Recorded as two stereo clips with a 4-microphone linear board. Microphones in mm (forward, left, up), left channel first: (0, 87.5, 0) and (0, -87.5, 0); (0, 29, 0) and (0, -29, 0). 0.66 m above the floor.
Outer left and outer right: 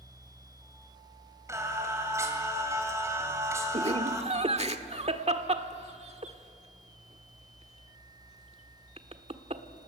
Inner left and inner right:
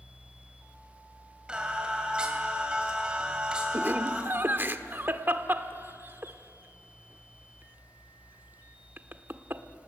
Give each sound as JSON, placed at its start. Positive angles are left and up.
{"t": 1.5, "sound": "singing", "side_deg": -15, "distance_m": 3.0}
{"t": 3.7, "sound": "laughter", "side_deg": -35, "distance_m": 1.4}